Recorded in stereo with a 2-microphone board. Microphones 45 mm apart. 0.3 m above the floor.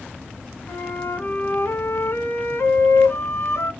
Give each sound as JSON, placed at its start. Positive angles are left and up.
{"t": 0.7, "sound": "a flute", "side_deg": 70, "distance_m": 0.9}